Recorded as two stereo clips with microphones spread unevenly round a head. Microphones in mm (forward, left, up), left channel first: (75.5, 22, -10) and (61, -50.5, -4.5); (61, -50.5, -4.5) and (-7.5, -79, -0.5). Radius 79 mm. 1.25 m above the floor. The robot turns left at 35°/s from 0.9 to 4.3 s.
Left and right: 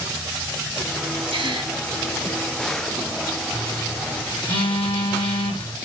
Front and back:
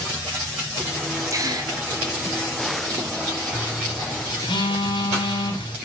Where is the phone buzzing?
105° left, 8 m; by 5.8 s 80° left, 8 m.